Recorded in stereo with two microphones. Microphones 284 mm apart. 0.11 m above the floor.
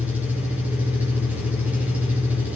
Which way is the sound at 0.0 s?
5° right (ahead or behind).